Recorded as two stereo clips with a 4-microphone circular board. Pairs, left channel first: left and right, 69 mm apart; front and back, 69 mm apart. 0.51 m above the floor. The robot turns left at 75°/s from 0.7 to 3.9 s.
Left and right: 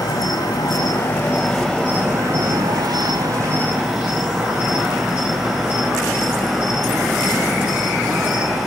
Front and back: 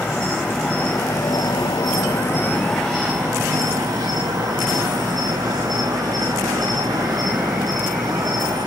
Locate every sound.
0.0 s an insect: 65° left, 3.5 m; by 8.7 s 175° right, 3.5 m